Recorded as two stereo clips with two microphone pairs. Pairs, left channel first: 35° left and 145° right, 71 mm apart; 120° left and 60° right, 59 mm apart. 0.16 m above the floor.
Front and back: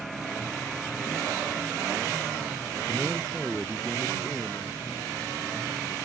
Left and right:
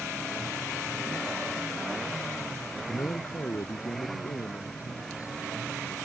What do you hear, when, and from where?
2.9 s a man speaking: 150° left; by 6.0 s 90° left